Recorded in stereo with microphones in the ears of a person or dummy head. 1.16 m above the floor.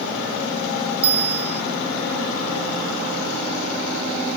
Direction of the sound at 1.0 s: 30° right (ahead or behind).